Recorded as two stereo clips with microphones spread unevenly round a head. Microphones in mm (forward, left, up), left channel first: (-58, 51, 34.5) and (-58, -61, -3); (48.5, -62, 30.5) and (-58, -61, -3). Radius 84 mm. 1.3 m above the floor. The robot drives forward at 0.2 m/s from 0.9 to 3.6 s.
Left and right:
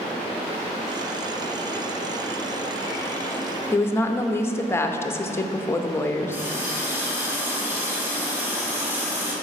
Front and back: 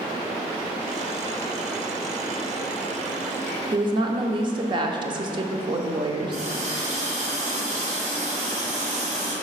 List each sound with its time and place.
3.7 s a woman speaking: 170° left, 0.6 m
6.3 s a running tap: 170° right, 1.6 m